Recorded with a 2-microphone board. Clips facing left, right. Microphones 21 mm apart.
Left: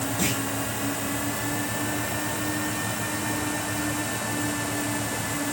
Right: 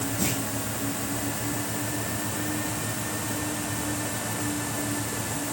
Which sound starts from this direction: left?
A clunk, at 0.2 s.